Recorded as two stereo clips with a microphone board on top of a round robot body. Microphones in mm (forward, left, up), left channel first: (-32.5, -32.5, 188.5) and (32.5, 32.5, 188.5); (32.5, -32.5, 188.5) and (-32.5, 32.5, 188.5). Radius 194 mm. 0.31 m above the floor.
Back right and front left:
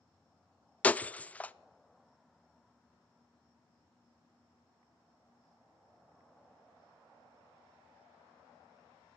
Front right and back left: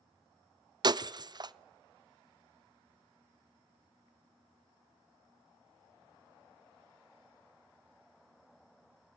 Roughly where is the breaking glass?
Behind left.